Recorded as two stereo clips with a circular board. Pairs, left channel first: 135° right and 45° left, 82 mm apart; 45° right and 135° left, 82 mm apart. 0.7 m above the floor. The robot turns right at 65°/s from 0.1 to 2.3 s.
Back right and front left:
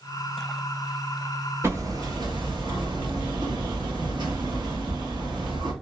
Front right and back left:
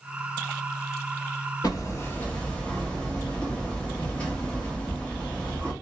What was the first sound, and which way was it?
Hammering, 10° right.